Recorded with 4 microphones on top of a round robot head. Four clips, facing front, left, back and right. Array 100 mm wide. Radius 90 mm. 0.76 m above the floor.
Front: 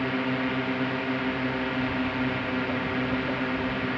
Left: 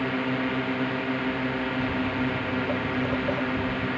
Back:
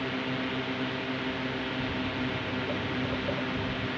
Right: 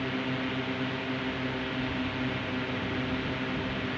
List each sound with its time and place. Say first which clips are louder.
0.0 s a drone: left 5 dB, front 5 dB; 50° left
1.8 s footsteps: left 5 dB, front 5 dB; 90° left; by 3.9 s 95° left